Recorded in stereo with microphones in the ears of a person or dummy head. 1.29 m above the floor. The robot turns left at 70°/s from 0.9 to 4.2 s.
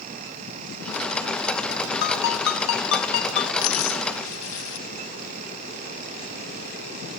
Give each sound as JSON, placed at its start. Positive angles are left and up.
{"t": 2.0, "sound": "a ringtone", "azimuth_deg": 125, "distance_m": 0.6}
{"t": 3.6, "sound": "a dropped coin", "side_deg": 45, "distance_m": 1.6}